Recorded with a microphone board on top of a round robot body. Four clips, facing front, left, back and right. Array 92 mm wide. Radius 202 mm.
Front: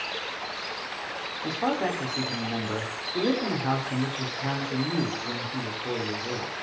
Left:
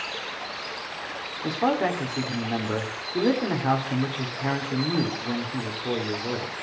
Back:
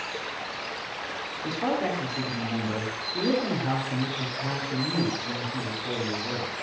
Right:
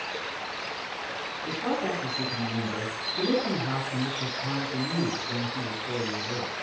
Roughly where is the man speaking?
Left.